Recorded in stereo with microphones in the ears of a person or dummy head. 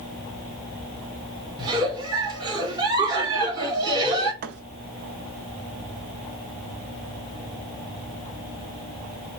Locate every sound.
1.6 s a giggle: 25° right (ahead or behind), 2 m
4.4 s a thud: 50° right (ahead or behind), 0.9 m